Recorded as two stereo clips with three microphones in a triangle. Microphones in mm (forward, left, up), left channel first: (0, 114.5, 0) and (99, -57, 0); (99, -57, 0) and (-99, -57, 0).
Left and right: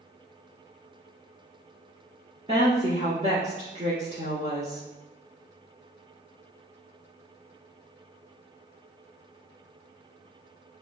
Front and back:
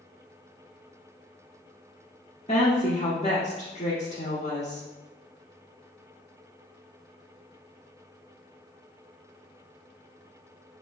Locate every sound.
2.5 s a woman speaking: 35° right, 1.5 m